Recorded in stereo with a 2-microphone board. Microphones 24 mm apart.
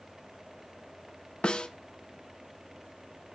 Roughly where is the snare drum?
Left.